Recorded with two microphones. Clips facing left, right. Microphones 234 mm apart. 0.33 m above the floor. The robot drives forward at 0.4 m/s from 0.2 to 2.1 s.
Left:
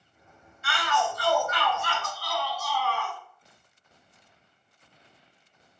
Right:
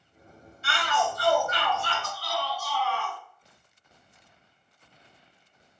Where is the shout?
30° right (ahead or behind), 1.8 m.